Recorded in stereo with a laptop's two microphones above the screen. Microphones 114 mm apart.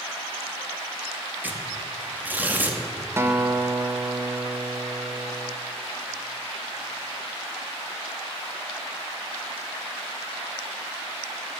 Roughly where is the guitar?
Right.